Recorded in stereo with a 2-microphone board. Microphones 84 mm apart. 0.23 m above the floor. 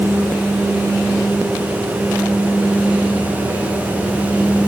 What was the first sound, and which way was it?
Only background noise.